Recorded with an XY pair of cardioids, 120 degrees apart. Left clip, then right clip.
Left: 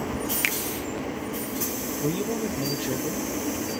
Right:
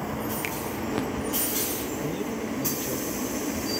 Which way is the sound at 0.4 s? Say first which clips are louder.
Left 11 dB; 50° left.